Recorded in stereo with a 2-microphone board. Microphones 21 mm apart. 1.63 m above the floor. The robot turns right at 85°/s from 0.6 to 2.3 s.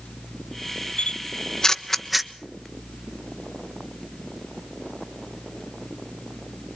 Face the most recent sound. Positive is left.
turn(degrees=-15)  # may be behind; listen again after turning